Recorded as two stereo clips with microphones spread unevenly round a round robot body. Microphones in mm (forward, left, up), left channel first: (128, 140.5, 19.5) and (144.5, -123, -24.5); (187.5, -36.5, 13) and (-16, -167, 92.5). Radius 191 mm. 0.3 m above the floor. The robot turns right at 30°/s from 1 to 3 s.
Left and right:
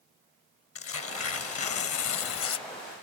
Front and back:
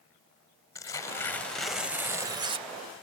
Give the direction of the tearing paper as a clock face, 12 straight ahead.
9 o'clock.